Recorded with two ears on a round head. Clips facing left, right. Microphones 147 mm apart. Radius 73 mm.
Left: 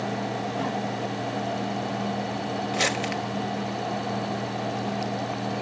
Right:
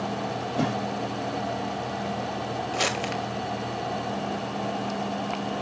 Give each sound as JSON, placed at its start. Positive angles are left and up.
{"t": 0.6, "sound": "a whoosh", "side_deg": -60, "distance_m": 4.0}
{"t": 2.7, "sound": "crumpling", "side_deg": 5, "distance_m": 2.0}